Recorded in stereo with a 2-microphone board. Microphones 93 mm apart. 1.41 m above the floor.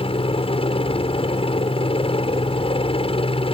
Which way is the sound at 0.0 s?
75° left (ahead or behind).